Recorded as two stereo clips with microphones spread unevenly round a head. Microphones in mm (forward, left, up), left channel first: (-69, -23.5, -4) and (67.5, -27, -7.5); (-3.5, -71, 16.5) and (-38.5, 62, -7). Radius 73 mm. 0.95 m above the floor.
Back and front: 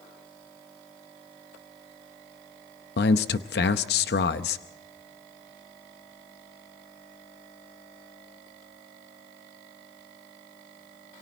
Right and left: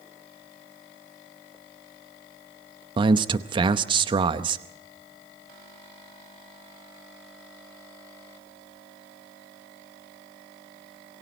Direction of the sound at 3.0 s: 155° left.